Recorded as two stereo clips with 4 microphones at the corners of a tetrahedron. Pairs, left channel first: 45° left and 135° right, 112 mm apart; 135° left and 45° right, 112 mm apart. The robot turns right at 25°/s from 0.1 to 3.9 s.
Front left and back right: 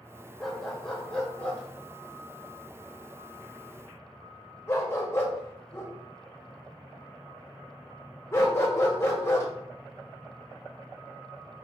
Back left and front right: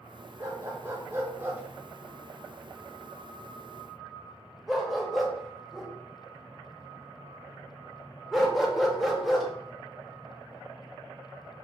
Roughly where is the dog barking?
Ahead right.